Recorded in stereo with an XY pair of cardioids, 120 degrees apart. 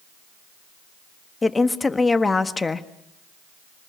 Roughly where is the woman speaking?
Ahead.